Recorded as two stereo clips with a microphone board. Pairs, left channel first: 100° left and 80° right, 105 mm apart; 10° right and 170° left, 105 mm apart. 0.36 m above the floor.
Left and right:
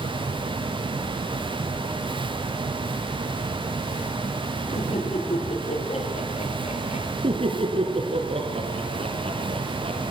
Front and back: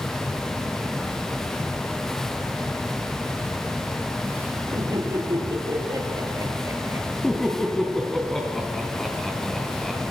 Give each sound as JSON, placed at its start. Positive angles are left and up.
{"t": 4.7, "sound": "laughter", "azimuth_deg": 115, "distance_m": 9.5}
{"t": 7.2, "sound": "laughter", "azimuth_deg": -95, "distance_m": 3.0}